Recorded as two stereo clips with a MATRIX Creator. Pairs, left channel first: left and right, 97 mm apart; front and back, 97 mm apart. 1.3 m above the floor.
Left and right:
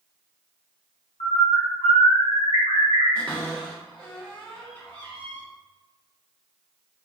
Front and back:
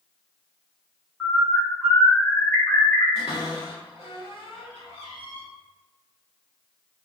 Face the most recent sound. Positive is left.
turn(degrees=10)